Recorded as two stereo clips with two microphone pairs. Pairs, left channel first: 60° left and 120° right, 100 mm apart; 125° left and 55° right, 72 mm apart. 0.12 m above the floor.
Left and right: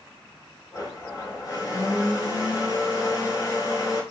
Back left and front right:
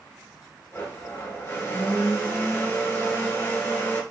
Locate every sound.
0.7 s a blender: 90° left, 1.5 m